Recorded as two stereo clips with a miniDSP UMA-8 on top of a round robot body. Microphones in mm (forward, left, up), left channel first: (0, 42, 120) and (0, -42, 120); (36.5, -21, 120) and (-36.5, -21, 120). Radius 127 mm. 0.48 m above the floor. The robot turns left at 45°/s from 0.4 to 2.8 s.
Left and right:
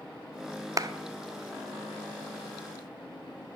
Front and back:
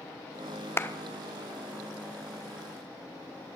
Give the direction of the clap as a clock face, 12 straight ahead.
2 o'clock.